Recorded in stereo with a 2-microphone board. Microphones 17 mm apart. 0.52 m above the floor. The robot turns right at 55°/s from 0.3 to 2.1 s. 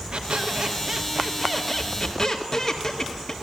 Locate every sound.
0.1 s a squeak: 75° right, 1.9 m; by 3.3 s 25° left, 1.9 m